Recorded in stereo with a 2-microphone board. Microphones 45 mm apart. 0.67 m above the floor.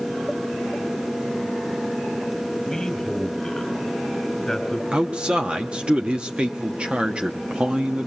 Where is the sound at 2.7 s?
10° left (ahead or behind), 5 m.